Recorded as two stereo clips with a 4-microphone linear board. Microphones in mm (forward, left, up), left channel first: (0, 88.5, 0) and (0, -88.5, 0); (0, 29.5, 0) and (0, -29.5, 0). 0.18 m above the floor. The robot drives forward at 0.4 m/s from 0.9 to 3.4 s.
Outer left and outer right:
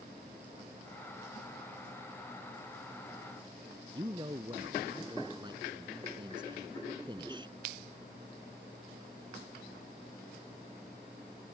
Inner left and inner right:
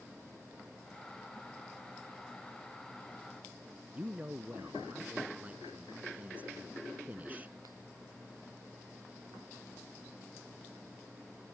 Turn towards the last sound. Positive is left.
turn(degrees=-25)  # may be behind; listen again after turning